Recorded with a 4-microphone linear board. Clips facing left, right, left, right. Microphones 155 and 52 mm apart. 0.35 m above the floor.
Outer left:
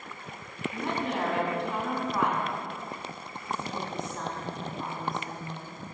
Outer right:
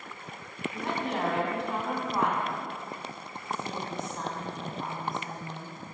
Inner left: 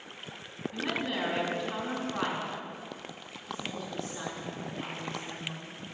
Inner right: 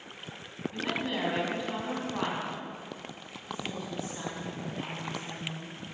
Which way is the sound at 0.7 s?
Centre (ahead or behind).